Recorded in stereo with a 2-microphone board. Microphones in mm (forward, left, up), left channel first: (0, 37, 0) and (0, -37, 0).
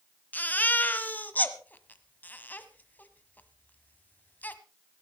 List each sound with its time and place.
0.3 s a baby crying: 25° left (ahead or behind), 1.3 m